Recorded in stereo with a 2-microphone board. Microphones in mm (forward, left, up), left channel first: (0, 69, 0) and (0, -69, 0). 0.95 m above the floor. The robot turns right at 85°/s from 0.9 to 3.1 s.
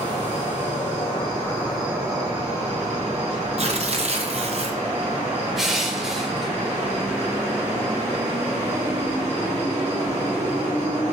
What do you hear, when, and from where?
0.0 s an insect: 105° left, 1.3 m; by 11.1 s 65° right, 1.3 m
3.6 s tearing paper: 50° right (ahead or behind), 0.6 m
5.6 s crushing: 5° right (ahead or behind), 0.6 m